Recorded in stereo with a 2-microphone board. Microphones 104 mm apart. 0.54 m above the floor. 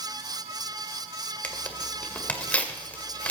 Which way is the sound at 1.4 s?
15° left (ahead or behind).